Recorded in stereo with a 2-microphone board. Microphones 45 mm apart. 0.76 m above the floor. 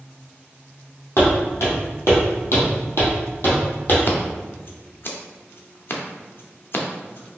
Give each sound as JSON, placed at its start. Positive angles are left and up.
{"t": 1.2, "sound": "footsteps", "side_deg": 65, "distance_m": 1.9}
{"t": 4.1, "sound": "scissors", "side_deg": 50, "distance_m": 0.6}